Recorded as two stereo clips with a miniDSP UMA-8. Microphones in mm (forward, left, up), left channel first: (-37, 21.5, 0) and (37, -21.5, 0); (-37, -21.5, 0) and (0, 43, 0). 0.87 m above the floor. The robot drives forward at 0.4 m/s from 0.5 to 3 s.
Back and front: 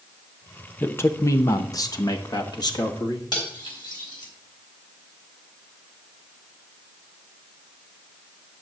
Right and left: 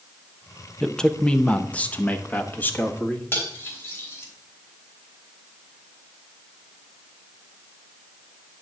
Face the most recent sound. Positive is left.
turn(degrees=180)